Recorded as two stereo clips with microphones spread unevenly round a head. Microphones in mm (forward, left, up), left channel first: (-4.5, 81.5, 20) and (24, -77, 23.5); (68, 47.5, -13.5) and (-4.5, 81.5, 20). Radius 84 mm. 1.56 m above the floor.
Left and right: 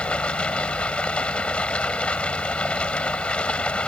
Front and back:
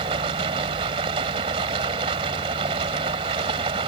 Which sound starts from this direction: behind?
Running water, at 0.0 s.